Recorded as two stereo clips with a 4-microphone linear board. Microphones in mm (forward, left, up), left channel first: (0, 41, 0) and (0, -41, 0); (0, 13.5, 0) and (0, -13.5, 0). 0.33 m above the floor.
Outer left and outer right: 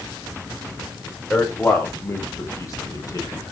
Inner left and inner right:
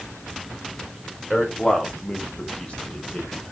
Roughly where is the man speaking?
Centre.